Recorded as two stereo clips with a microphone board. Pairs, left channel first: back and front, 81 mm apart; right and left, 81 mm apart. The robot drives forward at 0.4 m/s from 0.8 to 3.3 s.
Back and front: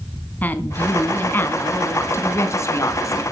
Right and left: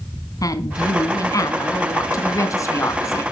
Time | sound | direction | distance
0.4 | a woman speaking | 115° right | 2.5 m